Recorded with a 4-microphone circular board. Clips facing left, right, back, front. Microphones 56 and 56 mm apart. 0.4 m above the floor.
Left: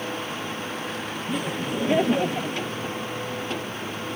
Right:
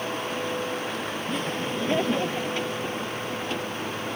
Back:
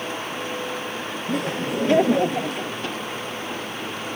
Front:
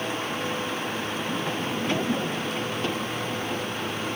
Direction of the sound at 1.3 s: 170° left.